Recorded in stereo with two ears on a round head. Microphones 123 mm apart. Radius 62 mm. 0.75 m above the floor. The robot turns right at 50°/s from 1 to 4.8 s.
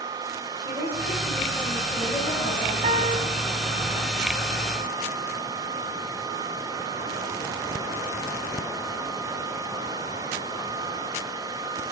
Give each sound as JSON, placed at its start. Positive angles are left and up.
{"t": 0.6, "sound": "a woman speaking", "azimuth_deg": -35, "distance_m": 4.5}
{"t": 2.8, "sound": "a piano", "side_deg": -45, "distance_m": 1.4}